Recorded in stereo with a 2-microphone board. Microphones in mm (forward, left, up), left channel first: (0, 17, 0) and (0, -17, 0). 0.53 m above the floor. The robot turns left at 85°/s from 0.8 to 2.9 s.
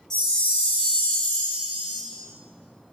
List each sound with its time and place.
0.1 s a chime: 165° left, 1.1 m; by 2.0 s 60° left, 1.1 m